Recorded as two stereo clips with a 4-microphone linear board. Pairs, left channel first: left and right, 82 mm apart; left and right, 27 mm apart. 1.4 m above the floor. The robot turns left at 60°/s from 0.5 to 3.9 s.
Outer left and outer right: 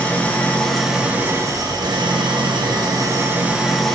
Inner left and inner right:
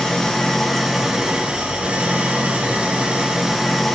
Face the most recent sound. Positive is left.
turn(degrees=175)